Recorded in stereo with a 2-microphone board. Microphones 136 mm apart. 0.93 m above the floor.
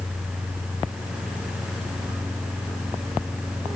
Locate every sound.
Only background noise.